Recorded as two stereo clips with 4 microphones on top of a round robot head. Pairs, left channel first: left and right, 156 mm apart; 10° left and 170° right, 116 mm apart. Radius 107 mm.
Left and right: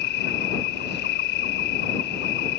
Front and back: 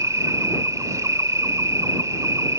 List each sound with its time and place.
0.0 s an insect: 130° left